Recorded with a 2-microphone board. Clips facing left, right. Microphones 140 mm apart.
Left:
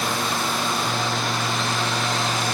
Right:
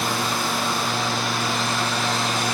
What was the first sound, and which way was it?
Only background noise.